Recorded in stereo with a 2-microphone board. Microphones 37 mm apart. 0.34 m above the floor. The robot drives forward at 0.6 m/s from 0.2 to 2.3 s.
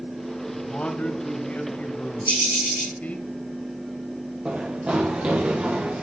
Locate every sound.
0.5 s a man speaking: 35° left (ahead or behind), 2.5 m; by 3.3 s 45° left (ahead or behind), 1.9 m
2.3 s a bird: 75° right (ahead or behind), 6.5 m
4.5 s running footsteps: 35° right (ahead or behind), 7.5 m